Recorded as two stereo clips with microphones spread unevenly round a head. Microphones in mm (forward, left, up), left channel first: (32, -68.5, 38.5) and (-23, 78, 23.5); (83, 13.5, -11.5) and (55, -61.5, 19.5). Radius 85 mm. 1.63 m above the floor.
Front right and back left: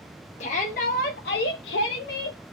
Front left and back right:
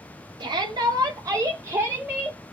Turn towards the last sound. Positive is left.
turn(degrees=-45)